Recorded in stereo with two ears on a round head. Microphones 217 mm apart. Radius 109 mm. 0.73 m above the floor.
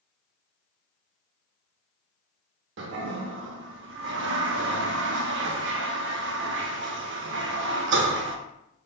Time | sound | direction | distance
2.8 | a toilet flushing | 50° right (ahead or behind) | 0.5 m